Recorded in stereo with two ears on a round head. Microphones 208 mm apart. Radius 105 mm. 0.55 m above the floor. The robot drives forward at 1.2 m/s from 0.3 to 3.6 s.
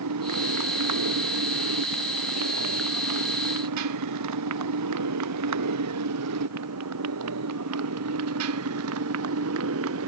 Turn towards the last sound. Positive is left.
turn(degrees=-65)  # may be behind; listen again after turning